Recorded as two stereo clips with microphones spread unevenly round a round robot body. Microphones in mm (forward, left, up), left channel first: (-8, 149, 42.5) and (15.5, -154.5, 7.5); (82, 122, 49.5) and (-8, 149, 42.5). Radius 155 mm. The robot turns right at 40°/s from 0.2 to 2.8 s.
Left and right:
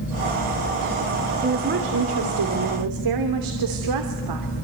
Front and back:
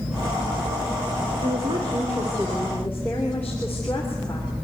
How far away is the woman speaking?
About 3 m.